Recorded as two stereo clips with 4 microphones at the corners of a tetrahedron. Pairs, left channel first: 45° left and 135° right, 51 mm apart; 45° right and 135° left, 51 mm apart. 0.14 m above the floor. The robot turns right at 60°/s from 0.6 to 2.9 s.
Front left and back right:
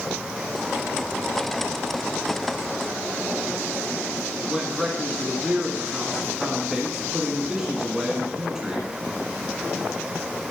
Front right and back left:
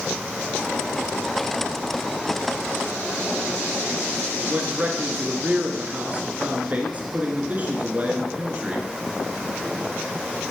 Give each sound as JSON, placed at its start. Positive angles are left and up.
{"t": 4.4, "sound": "a man speaking", "azimuth_deg": 155, "distance_m": 1.5}